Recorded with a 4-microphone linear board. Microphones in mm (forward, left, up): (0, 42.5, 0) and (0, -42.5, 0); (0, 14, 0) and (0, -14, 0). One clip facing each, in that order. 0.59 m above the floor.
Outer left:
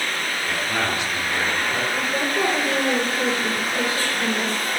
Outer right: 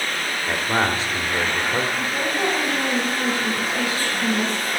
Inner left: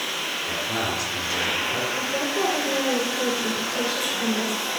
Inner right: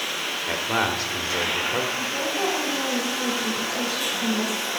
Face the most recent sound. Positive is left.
turn(degrees=35)  # may be behind; listen again after turning